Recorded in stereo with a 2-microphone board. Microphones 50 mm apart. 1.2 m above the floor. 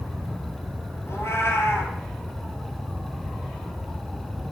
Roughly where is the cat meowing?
Left.